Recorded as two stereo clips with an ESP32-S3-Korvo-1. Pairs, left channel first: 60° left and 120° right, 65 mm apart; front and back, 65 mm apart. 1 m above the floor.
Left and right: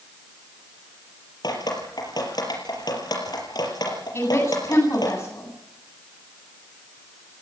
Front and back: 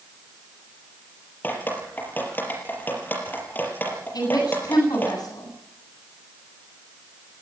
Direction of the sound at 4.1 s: 10° left.